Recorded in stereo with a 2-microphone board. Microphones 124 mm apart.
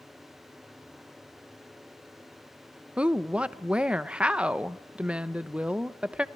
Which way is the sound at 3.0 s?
10° right (ahead or behind).